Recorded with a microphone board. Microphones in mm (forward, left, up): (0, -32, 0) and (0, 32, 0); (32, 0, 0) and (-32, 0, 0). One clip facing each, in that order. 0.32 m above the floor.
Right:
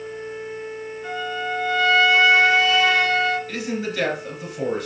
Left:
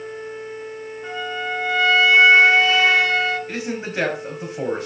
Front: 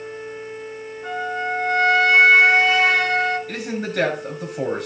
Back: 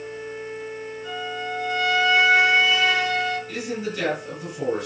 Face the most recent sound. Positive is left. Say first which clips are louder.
# right 1 dB, front 2 dB
turn(degrees=25)